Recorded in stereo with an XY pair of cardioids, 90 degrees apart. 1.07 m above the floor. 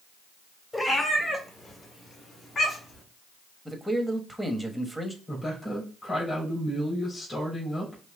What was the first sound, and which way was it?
A cat meowing, 20° left.